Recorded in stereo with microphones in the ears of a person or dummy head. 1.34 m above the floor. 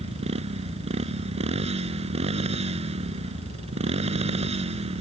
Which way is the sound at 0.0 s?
35° right (ahead or behind).